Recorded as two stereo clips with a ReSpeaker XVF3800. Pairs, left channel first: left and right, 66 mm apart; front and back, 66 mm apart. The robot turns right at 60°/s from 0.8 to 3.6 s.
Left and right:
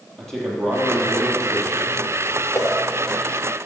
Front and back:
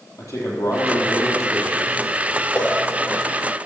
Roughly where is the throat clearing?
No throat clearing in this recording.